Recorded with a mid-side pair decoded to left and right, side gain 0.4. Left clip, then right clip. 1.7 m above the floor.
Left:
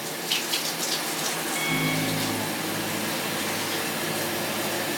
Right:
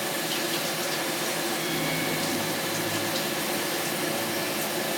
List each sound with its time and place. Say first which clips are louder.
1.6 s a microwave: left 2 dB; 65° left, 3 m